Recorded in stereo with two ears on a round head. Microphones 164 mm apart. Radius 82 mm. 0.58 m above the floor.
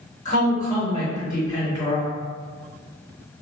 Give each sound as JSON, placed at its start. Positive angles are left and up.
{"t": 0.2, "sound": "a woman speaking", "side_deg": 40, "distance_m": 1.6}